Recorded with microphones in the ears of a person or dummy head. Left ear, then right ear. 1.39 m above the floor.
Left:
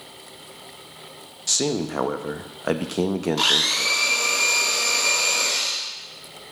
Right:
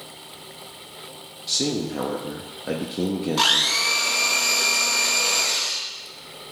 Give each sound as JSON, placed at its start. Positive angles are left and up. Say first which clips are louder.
{"t": 1.5, "sound": "a man speaking", "louder": "left 1 dB", "side_deg": 45, "distance_m": 0.6}
{"t": 3.4, "sound": "a blender", "louder": "right 1 dB", "side_deg": -10, "distance_m": 1.3}